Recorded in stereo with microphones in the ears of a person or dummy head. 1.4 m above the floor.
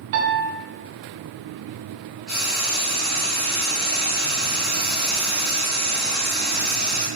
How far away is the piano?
About 1.0 m.